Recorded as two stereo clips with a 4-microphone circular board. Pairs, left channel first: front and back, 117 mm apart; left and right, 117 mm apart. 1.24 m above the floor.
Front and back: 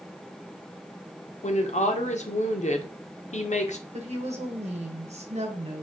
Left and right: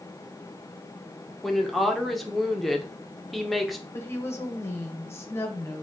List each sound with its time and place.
1.4 s a woman speaking: straight ahead, 0.6 m
3.9 s a woman speaking: 160° left, 0.9 m